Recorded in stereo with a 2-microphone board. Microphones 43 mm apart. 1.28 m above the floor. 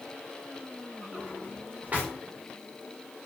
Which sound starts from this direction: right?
A drawer, at 1.1 s.